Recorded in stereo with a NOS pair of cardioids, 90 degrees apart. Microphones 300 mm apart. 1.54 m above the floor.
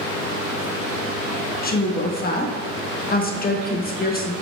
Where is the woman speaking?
30° left, 1.6 m.